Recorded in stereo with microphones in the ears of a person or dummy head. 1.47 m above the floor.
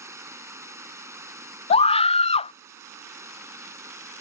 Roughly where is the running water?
Centre.